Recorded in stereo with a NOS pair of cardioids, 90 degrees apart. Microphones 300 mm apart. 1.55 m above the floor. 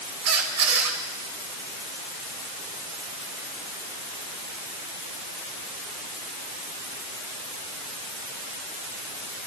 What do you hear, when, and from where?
0.2 s a squeak: 60° right, 4 m